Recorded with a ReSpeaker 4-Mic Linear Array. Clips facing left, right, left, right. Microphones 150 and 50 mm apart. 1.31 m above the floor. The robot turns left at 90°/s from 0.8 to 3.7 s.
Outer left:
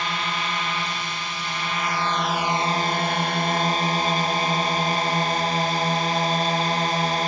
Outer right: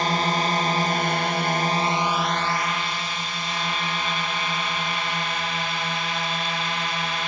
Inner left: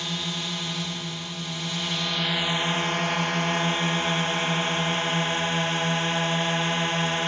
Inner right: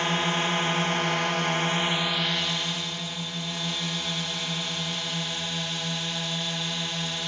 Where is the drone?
50° right; by 7.3 s 50° left.